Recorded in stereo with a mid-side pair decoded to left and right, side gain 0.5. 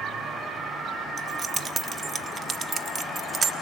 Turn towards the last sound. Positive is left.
turn(degrees=-35)